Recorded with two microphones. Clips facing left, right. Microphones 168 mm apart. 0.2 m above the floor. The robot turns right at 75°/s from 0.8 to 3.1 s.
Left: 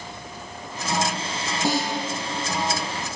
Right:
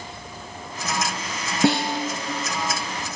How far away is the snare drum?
About 3.5 m.